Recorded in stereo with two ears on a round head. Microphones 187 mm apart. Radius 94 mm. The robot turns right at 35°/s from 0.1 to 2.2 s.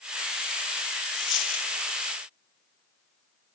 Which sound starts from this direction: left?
A dropped coin, at 1.1 s.